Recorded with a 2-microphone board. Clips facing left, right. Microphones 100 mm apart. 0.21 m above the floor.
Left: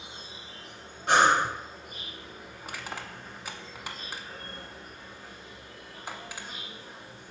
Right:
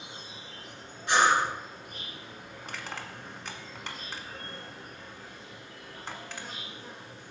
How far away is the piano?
No piano in this recording.